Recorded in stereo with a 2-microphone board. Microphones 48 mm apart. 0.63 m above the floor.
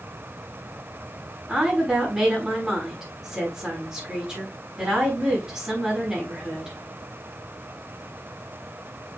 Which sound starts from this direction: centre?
A woman speaking, at 1.5 s.